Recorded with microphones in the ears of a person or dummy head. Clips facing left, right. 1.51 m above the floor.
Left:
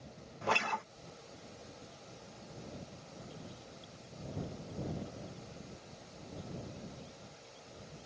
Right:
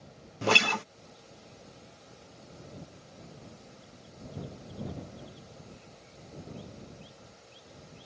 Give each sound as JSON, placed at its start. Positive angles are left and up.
{"t": 0.4, "sound": "a guitar", "side_deg": -50}